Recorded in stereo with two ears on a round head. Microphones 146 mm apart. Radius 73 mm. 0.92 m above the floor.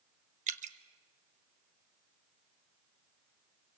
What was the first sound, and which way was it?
Dripping, 45° right (ahead or behind).